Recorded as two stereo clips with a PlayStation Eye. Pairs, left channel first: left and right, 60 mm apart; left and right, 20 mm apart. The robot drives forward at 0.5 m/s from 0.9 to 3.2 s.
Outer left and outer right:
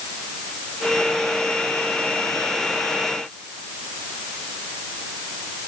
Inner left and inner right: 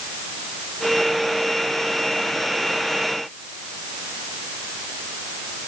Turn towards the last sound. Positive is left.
No sound to turn to.